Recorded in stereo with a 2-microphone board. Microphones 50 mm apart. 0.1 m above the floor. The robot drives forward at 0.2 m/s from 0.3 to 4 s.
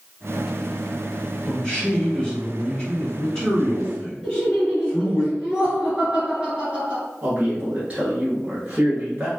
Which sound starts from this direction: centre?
A man speaking, at 1.4 s.